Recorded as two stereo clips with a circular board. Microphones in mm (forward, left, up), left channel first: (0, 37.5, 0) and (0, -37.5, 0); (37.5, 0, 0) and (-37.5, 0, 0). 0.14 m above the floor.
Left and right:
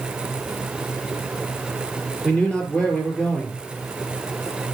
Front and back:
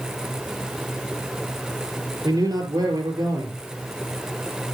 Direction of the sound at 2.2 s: 165° left.